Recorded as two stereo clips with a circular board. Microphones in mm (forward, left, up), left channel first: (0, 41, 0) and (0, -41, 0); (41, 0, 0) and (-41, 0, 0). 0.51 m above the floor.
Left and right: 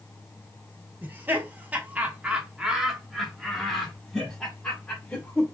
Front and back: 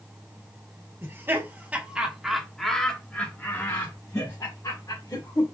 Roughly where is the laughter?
Behind right.